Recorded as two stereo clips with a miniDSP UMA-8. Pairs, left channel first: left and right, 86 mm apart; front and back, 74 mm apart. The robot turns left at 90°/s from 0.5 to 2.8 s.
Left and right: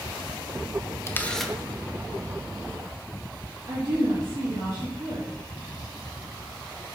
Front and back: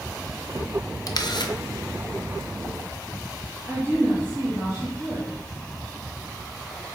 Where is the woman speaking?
115° right, 2.5 m.